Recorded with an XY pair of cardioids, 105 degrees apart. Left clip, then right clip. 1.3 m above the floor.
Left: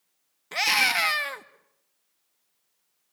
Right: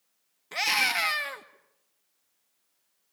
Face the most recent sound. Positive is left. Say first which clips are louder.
# left 3 dB
turn(degrees=20)